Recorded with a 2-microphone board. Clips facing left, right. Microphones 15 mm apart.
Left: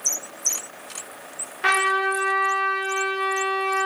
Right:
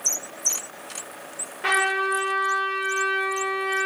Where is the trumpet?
30° left (ahead or behind), 0.9 m.